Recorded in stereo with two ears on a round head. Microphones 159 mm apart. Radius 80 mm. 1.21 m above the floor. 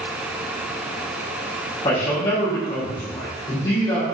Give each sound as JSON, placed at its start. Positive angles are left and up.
{"t": 1.8, "sound": "a man speaking", "side_deg": 25, "distance_m": 1.2}